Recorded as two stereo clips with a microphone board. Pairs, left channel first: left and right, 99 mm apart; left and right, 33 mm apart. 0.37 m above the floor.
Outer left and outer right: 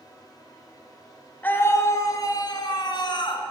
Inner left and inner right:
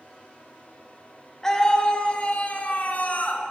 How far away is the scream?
About 1.1 m.